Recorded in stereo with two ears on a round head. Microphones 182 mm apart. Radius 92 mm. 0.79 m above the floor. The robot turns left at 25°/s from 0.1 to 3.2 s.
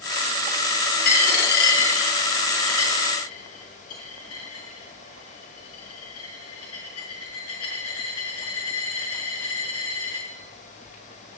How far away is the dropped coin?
About 4.5 m.